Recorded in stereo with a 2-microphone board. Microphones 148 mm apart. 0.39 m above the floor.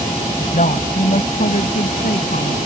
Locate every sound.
0.4 s a woman speaking: 60° left (ahead or behind); by 2.5 s 70° left (ahead or behind)